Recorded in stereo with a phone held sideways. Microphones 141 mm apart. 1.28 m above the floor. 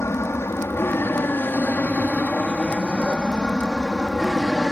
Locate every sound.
0.0 s an aircraft: 20° left (ahead or behind); by 4.7 s centre (ahead or behind)